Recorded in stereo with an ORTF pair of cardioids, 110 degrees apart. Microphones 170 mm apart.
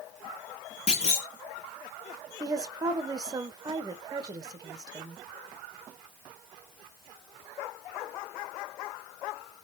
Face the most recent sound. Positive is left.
turn(degrees=-25)